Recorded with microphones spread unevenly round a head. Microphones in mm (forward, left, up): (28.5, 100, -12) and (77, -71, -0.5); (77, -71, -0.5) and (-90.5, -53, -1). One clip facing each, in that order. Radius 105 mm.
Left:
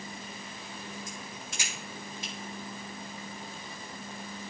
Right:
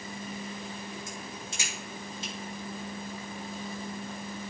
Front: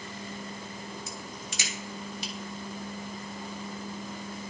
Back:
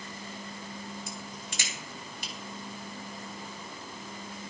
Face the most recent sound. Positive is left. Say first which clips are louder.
# right 2 dB, front 1 dB
turn(degrees=-145)